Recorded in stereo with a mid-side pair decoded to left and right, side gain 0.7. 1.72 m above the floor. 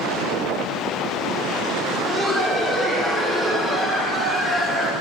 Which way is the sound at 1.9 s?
5° right.